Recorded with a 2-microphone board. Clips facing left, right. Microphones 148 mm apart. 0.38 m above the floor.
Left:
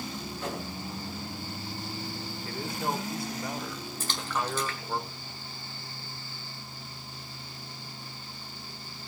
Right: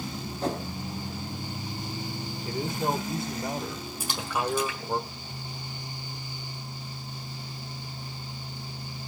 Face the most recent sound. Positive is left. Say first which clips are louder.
# right 3 dB
turn(degrees=-10)  # may be behind; listen again after turning